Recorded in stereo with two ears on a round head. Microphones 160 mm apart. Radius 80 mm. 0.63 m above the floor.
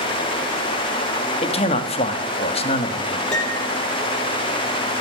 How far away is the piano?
About 3 m.